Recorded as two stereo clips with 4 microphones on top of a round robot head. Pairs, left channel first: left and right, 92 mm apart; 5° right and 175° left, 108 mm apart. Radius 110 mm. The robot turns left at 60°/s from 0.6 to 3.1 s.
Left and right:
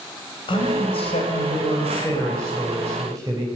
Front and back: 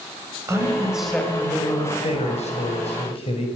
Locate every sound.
0.5 s a man speaking: 115° left, 6 m; by 3.5 s 35° right, 6 m